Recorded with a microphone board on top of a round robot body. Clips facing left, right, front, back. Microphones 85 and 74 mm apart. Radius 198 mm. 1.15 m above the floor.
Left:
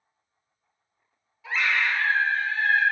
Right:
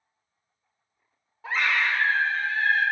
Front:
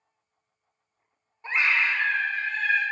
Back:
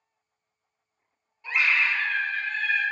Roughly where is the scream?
Ahead right.